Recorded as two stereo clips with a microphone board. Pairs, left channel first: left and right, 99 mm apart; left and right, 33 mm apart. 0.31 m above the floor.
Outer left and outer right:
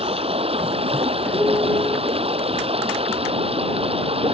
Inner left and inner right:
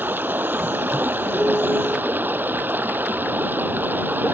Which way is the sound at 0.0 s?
80° right.